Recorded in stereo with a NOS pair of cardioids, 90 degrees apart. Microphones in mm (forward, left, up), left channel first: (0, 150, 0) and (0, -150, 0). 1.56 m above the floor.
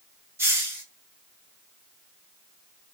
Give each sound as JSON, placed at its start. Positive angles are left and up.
{"t": 0.4, "sound": "a hiss", "azimuth_deg": -10, "distance_m": 1.7}